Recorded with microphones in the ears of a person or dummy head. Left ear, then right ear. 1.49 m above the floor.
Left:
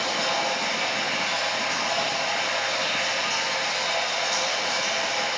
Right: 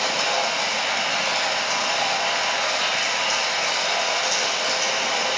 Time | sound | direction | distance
0.0 | running water | 75° right (ahead or behind) | 2.5 m